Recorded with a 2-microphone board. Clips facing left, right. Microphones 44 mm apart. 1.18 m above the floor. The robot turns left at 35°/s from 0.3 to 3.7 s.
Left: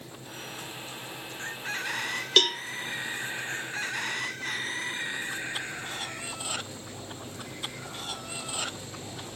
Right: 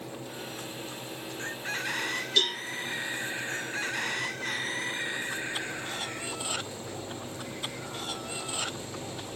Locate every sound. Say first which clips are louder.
2.4 s a cowbell: left 5 dB; 65° left (ahead or behind), 0.7 m